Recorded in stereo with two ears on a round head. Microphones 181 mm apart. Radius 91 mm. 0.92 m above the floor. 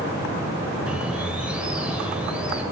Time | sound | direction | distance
0.9 | a bird | 5° right (ahead or behind) | 0.8 m